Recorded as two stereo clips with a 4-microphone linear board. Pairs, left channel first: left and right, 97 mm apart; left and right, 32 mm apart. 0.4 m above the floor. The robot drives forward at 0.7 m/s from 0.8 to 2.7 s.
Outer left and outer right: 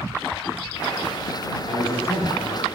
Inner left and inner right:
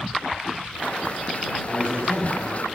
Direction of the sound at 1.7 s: 70° left (ahead or behind).